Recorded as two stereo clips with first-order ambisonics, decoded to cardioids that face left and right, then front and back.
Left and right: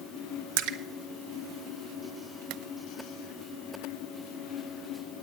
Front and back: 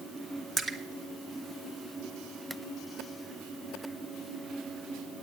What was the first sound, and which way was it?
A splash, 95° right.